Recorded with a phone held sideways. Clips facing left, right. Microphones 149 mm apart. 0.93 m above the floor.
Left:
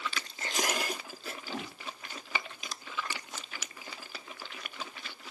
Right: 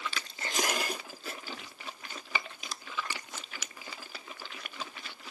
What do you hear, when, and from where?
1.5 s a whoosh: 75° left (ahead or behind)